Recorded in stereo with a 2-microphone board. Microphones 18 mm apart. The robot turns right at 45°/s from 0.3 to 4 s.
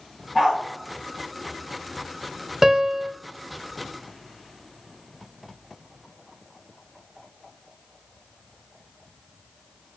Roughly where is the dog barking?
Right.